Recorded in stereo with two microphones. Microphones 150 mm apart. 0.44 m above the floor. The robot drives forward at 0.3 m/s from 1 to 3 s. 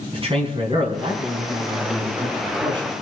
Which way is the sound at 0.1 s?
40° right (ahead or behind).